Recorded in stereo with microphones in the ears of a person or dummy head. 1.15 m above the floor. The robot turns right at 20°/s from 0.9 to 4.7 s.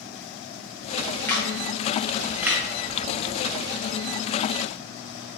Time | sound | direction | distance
1.3 | a camera shutter | 15° left (ahead or behind) | 0.8 m